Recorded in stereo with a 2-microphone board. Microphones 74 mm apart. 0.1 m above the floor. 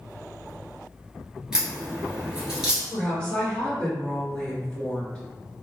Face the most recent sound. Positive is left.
turn(degrees=15)  # may be behind; listen again after turning